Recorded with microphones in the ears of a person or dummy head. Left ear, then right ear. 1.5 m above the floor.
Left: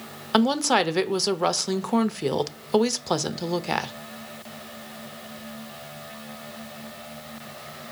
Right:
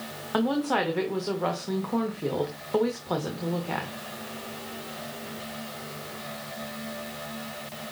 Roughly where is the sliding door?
No sliding door in this recording.